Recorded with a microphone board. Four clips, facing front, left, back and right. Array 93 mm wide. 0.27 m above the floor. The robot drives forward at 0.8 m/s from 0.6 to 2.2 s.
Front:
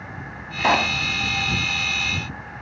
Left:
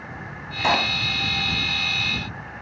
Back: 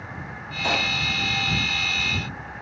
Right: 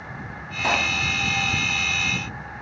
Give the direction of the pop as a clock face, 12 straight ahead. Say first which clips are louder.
Left 2 dB, front 7 dB; 11 o'clock.